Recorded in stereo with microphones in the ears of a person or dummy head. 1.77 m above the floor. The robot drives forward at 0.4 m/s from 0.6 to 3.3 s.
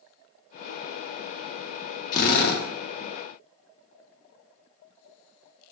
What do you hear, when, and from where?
2.1 s a drill: 35° left (ahead or behind), 0.7 m; by 2.6 s 50° left (ahead or behind), 0.5 m